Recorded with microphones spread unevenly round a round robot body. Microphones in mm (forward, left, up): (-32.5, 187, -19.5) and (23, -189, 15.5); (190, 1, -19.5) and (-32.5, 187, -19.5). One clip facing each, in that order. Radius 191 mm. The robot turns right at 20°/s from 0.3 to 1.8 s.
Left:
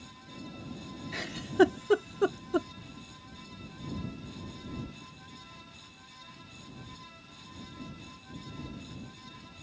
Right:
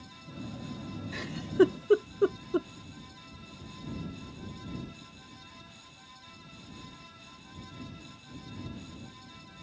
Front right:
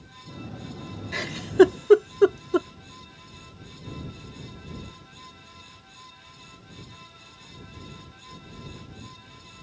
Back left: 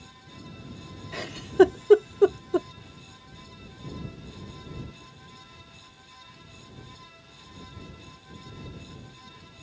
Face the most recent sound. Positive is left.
turn(degrees=30)